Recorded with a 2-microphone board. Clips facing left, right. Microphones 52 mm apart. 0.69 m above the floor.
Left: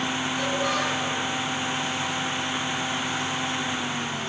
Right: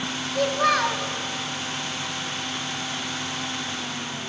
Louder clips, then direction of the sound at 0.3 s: Right 7 dB; 75° right (ahead or behind).